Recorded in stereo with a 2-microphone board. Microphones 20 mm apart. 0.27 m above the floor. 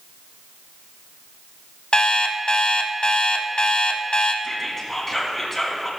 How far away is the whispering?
About 2.5 m.